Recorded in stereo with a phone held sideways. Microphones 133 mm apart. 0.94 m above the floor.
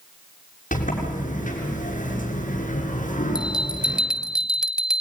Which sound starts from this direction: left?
A sliding door, at 0.7 s.